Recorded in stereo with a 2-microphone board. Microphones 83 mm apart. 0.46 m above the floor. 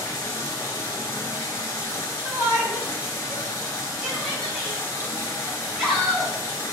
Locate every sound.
0.0 s running water: 35° left (ahead or behind), 2.5 m
2.2 s a shout: 5° left (ahead or behind), 4.5 m